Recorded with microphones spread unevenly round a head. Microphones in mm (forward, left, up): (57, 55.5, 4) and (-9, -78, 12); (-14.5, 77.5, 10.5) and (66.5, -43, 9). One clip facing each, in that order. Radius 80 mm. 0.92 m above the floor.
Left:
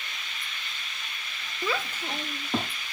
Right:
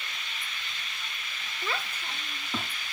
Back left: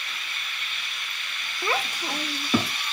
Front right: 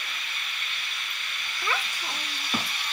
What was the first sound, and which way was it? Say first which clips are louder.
A child speaking: left 5 dB, back left 4 dB; 50° left.